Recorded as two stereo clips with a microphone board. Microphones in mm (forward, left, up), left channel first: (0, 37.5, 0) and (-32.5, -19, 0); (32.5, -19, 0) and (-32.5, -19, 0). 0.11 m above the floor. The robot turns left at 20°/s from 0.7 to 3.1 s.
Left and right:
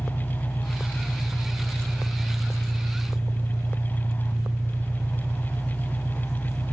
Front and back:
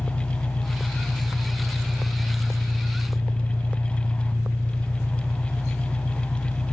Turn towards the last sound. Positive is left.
turn(degrees=-55)